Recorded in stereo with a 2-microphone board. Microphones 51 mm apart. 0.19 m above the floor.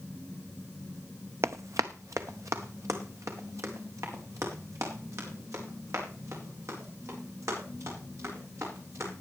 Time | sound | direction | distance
1.4 | running footsteps | 65° right (ahead or behind) | 0.5 m